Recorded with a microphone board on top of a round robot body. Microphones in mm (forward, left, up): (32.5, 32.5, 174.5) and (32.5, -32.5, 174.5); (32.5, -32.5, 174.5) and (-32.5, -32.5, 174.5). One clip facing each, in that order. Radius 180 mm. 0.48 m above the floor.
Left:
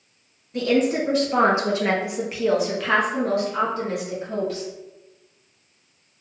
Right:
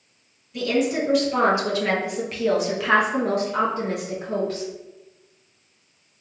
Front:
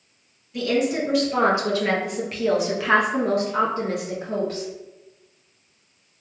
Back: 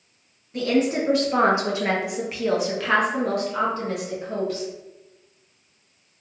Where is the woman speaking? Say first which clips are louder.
Left 2 dB, back 1 dB; 135° left, 1.5 m; by 4.7 s 45° right, 1.5 m.